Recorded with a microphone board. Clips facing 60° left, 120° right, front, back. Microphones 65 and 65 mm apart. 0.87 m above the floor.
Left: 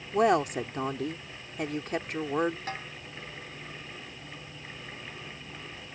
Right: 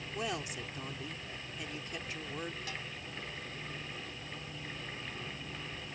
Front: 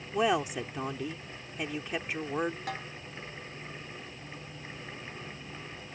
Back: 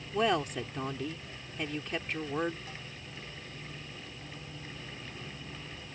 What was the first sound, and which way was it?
A woman speaking, 80° left.